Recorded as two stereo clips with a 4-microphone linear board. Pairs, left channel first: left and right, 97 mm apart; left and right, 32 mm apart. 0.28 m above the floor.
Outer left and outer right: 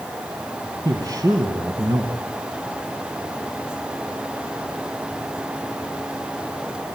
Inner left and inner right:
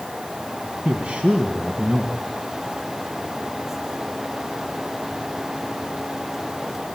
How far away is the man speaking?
About 2 m.